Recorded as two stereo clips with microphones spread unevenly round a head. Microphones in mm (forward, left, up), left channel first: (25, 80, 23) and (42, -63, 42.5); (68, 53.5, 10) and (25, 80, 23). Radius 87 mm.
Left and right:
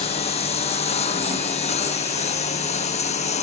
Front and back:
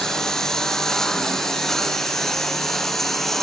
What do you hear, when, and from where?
0.0 s a lawn mower: 50° left; by 3.4 s 55° left